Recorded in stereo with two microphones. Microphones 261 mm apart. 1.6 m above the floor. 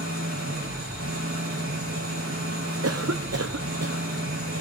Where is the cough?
65° right (ahead or behind), 0.8 m.